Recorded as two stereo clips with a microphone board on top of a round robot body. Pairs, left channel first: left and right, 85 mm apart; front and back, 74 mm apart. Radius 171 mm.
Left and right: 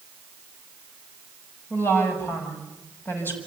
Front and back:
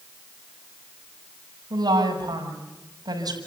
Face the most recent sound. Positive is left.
turn(degrees=155)